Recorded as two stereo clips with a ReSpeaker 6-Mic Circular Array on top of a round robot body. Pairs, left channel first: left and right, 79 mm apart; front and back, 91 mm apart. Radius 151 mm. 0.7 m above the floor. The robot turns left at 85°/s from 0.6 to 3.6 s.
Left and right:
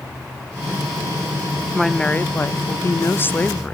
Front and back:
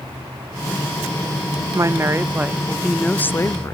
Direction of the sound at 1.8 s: Straight behind.